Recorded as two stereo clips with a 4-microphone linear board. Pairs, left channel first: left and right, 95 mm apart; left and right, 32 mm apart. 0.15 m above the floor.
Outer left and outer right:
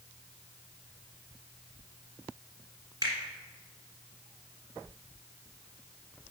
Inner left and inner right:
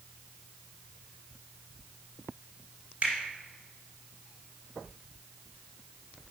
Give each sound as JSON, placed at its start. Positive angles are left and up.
{"t": 3.0, "sound": "a finger snap", "side_deg": -35, "distance_m": 1.6}